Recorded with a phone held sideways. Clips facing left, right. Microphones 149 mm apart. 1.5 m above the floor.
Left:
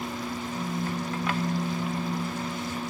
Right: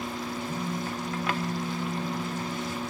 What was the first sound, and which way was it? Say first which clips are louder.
A phone buzzing: left 3 dB; 60° right (ahead or behind).